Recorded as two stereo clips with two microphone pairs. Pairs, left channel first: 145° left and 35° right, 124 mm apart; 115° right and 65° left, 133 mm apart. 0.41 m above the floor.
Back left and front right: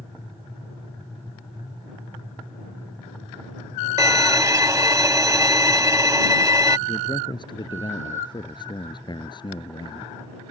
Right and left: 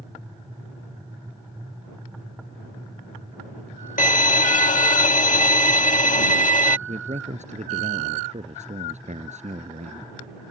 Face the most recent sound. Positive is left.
turn(degrees=90)